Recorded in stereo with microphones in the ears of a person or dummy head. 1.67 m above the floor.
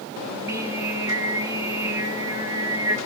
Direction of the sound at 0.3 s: 20° right (ahead or behind).